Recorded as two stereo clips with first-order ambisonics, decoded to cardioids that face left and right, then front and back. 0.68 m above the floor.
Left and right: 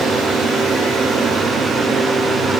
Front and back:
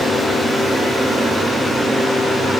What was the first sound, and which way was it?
Only background noise.